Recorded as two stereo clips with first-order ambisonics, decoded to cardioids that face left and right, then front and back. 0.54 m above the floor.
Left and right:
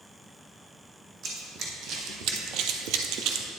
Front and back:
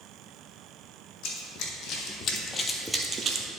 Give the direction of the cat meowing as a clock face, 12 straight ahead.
I don't hear a cat meowing.